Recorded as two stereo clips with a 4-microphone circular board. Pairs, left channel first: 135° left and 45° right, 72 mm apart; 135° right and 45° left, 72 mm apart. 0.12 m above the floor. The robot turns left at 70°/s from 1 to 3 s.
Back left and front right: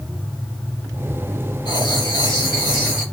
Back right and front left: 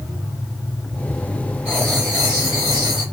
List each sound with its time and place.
1.6 s writing: 155° left, 4 m; by 3.0 s 60° left, 4 m